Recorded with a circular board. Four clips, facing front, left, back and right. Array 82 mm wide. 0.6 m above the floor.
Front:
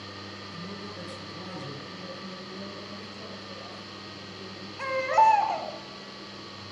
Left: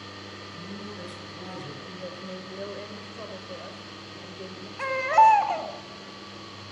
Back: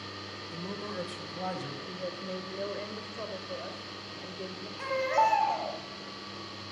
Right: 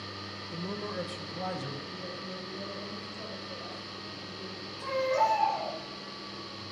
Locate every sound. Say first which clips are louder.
0.5 s a man speaking: right 6 dB, back 5 dB; 120° right, 1.7 m; by 1.8 s 140° right, 3 m
1.9 s a woman speaking: left 2 dB, back 3 dB; 150° left, 2.5 m
4.8 s a baby crying: left 9 dB, front 5 dB; 70° left, 2.5 m